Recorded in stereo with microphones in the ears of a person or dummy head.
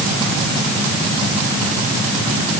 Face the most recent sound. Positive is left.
No sound to turn to.